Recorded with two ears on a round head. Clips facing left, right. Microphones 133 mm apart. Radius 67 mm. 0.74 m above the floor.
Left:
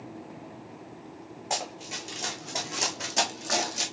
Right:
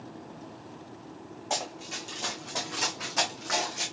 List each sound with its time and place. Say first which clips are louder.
1.5 s running footsteps: even; 15° left (ahead or behind), 2.5 m; by 3.9 s 40° left (ahead or behind), 1.5 m